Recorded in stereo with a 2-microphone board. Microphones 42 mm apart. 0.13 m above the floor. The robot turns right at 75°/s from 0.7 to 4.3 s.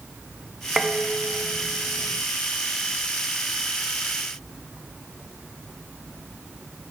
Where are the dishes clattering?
175° right; by 2.2 s 60° right.